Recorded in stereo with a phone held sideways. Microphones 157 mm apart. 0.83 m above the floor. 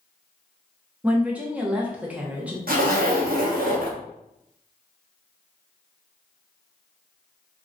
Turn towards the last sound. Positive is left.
turn(degrees=-70)  # may be behind; listen again after turning